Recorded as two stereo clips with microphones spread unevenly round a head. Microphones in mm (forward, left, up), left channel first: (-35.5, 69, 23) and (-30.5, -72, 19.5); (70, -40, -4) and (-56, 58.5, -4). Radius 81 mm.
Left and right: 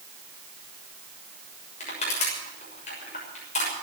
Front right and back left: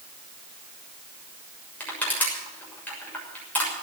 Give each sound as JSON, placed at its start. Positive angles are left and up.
{"t": 1.8, "sound": "crushing", "azimuth_deg": 45, "distance_m": 6.5}